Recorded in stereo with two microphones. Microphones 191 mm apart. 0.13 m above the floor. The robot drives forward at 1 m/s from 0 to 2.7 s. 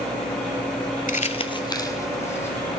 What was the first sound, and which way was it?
Crumpling, 50° left (ahead or behind).